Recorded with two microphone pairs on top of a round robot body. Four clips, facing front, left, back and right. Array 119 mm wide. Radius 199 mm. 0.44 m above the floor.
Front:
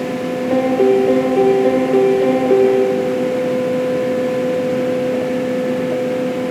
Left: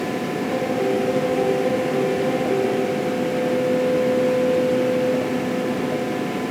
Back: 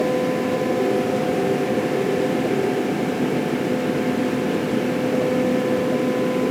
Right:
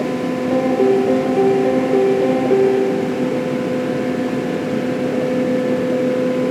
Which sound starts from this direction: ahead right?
A piano, at 0.5 s.